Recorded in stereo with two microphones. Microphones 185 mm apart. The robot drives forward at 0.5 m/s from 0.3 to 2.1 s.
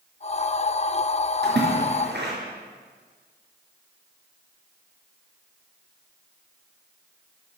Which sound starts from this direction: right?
A splash, at 1.4 s.